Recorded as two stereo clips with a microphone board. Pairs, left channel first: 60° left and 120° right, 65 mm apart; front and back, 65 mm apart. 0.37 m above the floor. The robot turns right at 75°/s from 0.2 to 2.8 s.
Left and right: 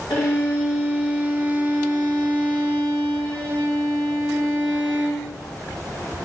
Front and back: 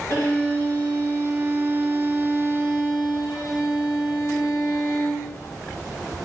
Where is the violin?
60° left, 4 m; by 5.3 s 105° right, 4 m.